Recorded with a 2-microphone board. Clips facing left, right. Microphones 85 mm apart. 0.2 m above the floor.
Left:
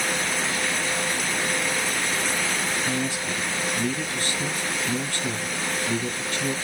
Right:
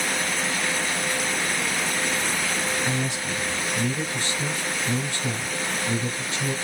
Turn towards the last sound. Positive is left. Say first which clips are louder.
# even
turn(degrees=-20)  # may be behind; listen again after turning